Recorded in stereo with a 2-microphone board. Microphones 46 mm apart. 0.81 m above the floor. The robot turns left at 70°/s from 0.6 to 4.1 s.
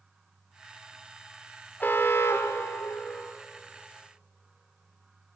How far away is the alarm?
About 1.3 m.